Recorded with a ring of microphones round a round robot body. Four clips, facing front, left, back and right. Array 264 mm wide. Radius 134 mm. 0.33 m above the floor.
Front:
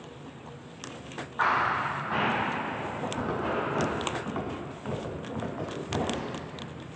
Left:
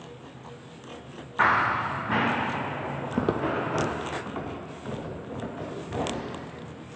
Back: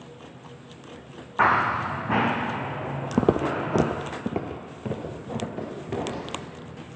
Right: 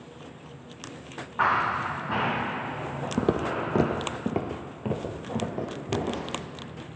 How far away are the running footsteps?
About 1.3 m.